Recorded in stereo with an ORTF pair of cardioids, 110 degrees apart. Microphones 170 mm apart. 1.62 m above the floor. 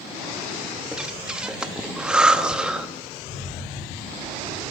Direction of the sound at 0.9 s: 5° right.